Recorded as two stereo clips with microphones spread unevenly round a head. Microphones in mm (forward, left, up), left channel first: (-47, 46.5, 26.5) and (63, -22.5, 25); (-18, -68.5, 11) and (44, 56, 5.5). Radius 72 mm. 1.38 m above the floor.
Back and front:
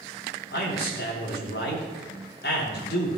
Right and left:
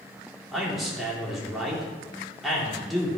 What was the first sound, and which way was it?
A man speaking, 155° left.